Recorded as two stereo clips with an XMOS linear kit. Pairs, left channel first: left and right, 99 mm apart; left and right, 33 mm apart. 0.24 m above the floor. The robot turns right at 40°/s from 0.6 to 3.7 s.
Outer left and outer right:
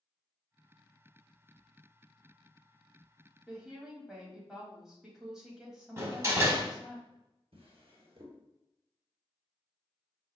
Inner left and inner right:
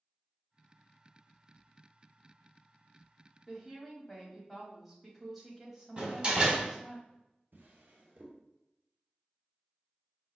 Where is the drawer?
80° right, 1.4 m.